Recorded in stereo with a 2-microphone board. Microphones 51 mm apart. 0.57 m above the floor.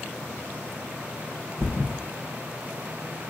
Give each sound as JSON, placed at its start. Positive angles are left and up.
{"t": 1.6, "sound": "a thud", "side_deg": 65, "distance_m": 2.0}